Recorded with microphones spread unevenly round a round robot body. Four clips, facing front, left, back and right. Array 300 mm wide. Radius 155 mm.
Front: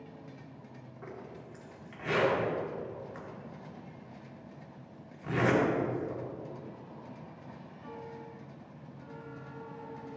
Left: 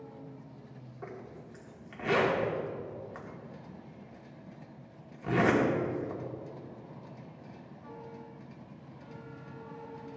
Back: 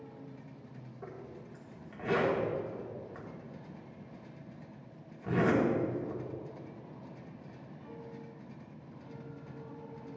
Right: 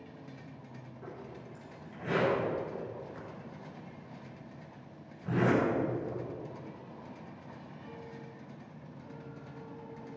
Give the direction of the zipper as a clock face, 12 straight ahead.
9 o'clock.